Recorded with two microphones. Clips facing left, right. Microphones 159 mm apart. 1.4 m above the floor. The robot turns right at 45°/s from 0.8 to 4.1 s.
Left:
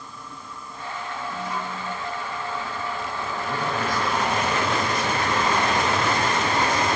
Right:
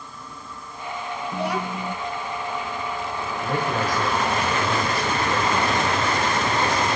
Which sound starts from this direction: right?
A child speaking, at 1.3 s.